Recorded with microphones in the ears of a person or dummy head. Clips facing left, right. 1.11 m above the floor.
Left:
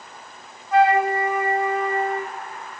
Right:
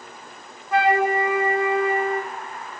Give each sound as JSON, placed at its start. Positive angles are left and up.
{"t": 0.7, "sound": "a flute", "side_deg": -55, "distance_m": 1.6}